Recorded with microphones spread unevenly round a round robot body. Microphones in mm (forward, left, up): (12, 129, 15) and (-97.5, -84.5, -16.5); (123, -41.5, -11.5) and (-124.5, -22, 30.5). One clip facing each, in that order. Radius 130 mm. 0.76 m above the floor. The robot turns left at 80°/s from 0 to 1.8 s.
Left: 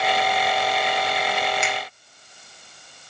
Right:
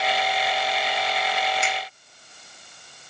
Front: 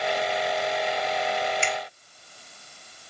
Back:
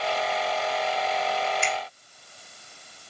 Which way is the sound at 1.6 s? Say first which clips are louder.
Left 2 dB, even; 25° left.